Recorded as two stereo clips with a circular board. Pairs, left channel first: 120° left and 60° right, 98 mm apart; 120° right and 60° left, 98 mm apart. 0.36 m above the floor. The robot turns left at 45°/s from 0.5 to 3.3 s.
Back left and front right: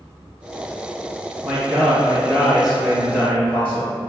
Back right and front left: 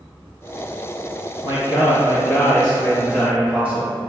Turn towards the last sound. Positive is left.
turn(degrees=180)